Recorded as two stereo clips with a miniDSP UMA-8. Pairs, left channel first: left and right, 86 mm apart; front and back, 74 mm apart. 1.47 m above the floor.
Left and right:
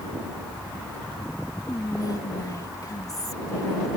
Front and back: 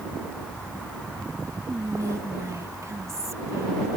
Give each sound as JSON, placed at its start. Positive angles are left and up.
{"t": 1.7, "sound": "whispering", "azimuth_deg": 135}